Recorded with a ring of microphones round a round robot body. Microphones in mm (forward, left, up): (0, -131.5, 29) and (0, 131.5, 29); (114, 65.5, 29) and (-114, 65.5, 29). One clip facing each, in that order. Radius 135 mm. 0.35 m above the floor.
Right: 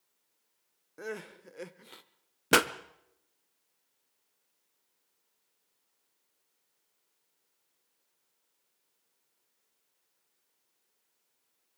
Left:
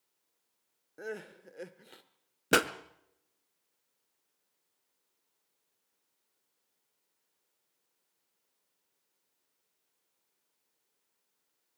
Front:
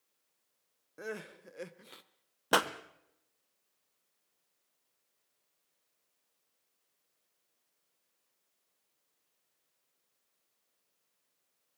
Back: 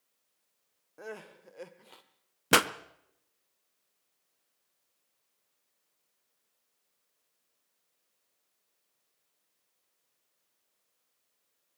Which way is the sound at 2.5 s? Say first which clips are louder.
Right 1 dB, back 4 dB; 175° right.